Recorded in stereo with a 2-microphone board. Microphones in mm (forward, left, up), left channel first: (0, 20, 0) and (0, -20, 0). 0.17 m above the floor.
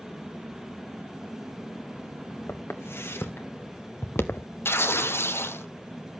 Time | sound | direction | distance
2.5 | footsteps | 85° left | 2.5 m
4.7 | tearing paper | 80° left | 0.9 m